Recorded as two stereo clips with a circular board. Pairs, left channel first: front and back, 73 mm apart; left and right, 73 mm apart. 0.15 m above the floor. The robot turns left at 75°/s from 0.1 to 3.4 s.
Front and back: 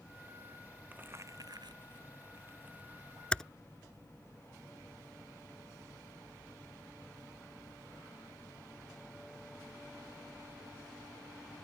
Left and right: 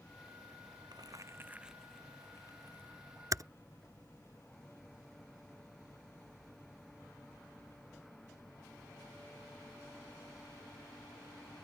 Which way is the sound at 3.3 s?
70° right.